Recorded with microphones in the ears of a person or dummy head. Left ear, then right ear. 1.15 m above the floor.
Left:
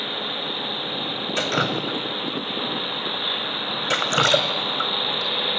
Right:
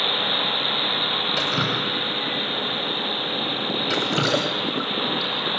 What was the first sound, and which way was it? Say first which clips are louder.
Dripping: right 1 dB; 30° left (ahead or behind).